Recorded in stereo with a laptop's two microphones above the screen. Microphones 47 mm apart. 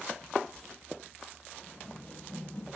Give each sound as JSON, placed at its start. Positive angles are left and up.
{"t": 1.6, "sound": "running footsteps", "side_deg": 30, "distance_m": 9.5}